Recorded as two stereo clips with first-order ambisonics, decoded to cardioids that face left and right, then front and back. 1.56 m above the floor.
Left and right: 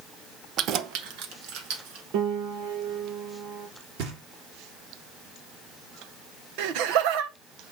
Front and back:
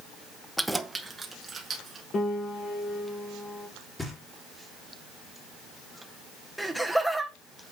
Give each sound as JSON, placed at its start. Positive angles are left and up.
{"t": 0.6, "sound": "keys jangling", "azimuth_deg": -85, "distance_m": 0.6}
{"t": 2.1, "sound": "a piano", "azimuth_deg": -65, "distance_m": 1.9}
{"t": 4.0, "sound": "knocking", "azimuth_deg": -80, "distance_m": 3.5}
{"t": 6.6, "sound": "laughter", "azimuth_deg": -90, "distance_m": 1.1}